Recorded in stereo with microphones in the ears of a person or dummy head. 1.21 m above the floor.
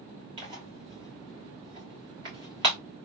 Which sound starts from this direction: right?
Tearing paper, at 0.4 s.